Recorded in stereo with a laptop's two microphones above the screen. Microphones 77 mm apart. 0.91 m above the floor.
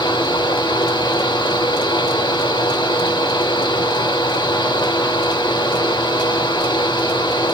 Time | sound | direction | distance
0.0 | a fan | 75° left (ahead or behind) | 0.9 m